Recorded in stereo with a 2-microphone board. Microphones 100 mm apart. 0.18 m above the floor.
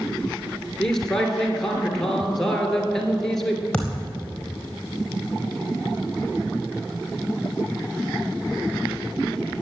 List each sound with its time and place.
0.8 s a man speaking: 5° left (ahead or behind), 3 m
3.7 s a thud: 10° left (ahead or behind), 4 m